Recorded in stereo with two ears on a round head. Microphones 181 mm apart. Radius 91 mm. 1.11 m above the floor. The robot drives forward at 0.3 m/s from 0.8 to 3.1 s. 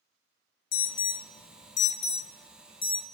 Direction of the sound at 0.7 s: 45° left (ahead or behind).